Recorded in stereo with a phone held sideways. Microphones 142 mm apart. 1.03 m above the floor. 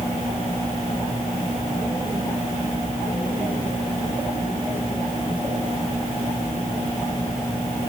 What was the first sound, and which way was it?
Only background noise.